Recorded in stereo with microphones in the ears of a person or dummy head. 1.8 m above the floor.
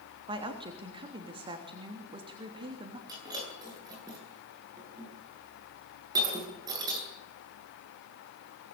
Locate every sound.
0.3 s a woman speaking: 35° right (ahead or behind), 3 m
3.1 s breaking glass: 15° right (ahead or behind), 10 m